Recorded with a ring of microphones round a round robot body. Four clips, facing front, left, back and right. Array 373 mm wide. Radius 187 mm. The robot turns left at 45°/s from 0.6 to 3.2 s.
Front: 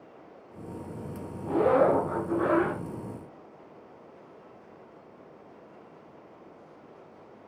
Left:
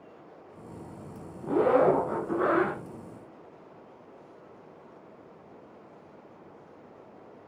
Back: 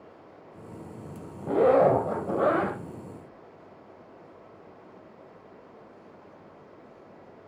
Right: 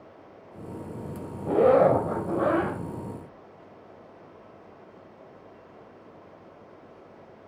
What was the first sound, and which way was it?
A zipper, 105° right.